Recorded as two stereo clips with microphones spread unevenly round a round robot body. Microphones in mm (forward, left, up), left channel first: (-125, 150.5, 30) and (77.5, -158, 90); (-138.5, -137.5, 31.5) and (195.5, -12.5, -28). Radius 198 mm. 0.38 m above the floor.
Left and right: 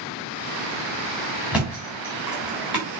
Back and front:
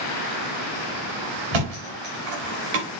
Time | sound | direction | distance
1.5 | a thud | 30° left | 3.5 m